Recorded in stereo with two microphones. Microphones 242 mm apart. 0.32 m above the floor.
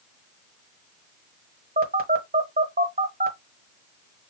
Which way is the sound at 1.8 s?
40° right (ahead or behind).